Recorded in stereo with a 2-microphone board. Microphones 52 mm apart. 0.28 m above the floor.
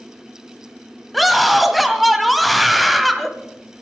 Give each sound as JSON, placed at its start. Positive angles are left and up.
{"t": 1.1, "sound": "a scream", "side_deg": 0, "distance_m": 1.6}